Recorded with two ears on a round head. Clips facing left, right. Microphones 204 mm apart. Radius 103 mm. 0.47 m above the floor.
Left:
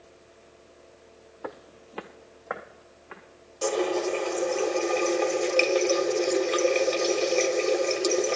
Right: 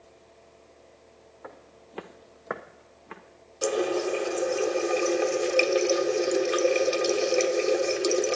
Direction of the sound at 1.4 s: 60° left (ahead or behind).